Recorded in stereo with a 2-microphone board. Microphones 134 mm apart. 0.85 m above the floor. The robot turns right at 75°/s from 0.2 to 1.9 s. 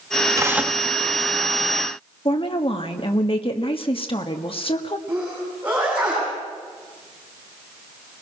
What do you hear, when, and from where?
0.4 s tearing paper: 30° right, 1.0 m; by 0.8 s 5° left, 1.0 m
2.2 s a woman speaking: 40° left (ahead or behind), 1.5 m
5.1 s a sneeze: 10° right (ahead or behind), 9.5 m